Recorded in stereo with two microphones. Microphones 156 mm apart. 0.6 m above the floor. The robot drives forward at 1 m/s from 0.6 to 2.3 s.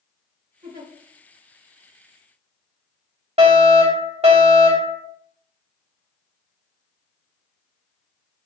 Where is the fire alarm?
40° right (ahead or behind), 2.5 m.